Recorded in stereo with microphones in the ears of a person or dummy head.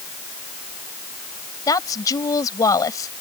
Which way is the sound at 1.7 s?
20° left (ahead or behind).